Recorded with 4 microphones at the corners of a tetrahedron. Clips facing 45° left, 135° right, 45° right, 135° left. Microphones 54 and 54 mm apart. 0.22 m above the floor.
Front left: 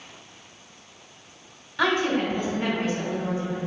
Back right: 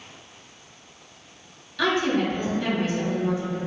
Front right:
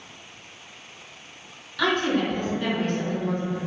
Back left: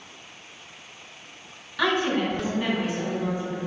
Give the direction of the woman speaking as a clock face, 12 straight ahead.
9 o'clock.